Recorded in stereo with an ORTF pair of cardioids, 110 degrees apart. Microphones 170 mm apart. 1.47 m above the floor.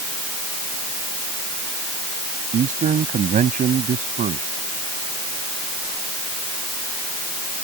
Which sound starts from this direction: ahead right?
A man speaking, at 2.5 s.